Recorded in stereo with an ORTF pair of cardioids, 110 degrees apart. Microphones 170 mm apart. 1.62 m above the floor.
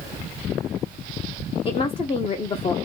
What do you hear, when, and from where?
1.6 s a woman speaking: 30° left, 0.8 m